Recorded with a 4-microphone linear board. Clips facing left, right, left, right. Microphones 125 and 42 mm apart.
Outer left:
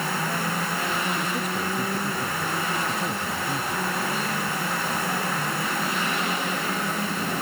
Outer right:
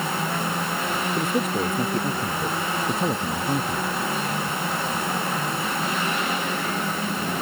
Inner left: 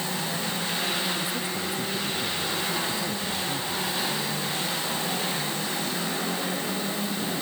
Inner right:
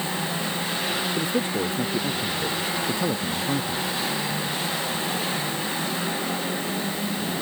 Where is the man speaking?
45° right (ahead or behind).